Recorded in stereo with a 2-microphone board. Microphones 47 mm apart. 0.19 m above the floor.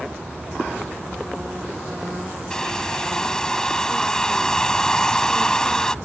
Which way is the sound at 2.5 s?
15° left (ahead or behind).